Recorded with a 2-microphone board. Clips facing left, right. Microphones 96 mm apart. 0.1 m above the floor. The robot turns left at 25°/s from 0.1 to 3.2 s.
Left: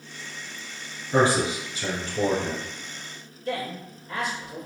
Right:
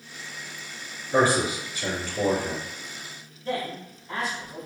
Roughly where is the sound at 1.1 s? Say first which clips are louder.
Even; left.